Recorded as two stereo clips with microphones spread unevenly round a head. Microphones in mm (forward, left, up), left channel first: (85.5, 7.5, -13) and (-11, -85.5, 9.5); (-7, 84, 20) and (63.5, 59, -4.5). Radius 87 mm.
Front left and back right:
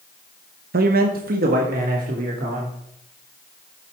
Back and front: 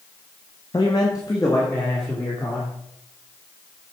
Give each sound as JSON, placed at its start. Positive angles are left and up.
{"t": 0.7, "sound": "a man speaking", "azimuth_deg": -130, "distance_m": 0.9}